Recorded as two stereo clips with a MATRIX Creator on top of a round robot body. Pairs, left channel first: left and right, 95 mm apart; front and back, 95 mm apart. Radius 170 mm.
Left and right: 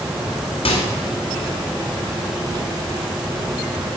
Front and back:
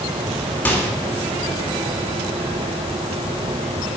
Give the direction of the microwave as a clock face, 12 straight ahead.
10 o'clock.